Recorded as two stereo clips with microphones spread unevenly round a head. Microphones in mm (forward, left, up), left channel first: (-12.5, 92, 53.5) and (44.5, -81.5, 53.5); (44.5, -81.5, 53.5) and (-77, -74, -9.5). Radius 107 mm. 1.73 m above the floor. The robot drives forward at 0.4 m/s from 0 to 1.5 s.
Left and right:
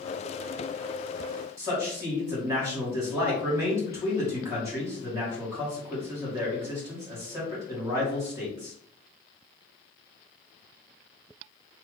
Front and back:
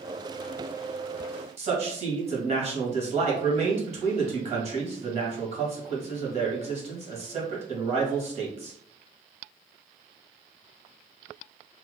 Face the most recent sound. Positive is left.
turn(degrees=-145)